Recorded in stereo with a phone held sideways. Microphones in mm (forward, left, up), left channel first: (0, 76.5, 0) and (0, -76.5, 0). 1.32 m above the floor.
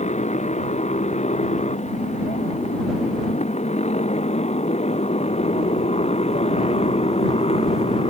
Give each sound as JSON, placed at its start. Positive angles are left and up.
{"t": 0.0, "sound": "a motorcycle", "side_deg": 50}